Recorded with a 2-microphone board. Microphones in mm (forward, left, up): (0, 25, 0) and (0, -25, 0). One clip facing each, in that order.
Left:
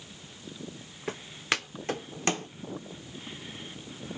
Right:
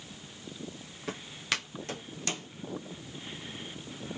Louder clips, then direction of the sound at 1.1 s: Left 3 dB; 20° left (ahead or behind).